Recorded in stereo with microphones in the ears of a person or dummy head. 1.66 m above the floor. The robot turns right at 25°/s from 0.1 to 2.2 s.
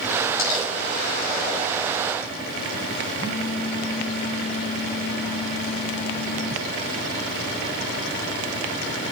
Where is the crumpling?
70° left (ahead or behind), 4 m; by 0.7 s 60° left (ahead or behind), 4 m.